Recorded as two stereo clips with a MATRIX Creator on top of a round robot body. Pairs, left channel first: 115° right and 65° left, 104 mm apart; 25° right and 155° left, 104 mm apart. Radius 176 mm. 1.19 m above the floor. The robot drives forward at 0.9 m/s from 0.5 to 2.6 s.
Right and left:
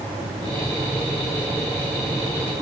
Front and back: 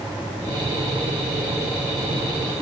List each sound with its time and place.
Only background noise.